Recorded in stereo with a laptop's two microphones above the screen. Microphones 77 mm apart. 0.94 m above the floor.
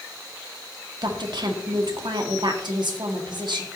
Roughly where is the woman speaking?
Right.